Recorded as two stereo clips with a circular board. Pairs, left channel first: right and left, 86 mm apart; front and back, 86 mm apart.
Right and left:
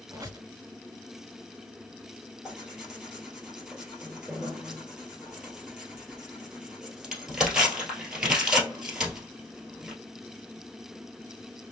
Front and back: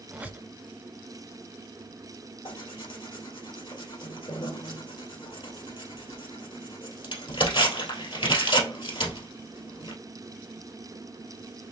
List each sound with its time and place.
0.1 s a squeak: 120° left, 0.9 m
2.5 s tearing paper: 5° left, 1.8 m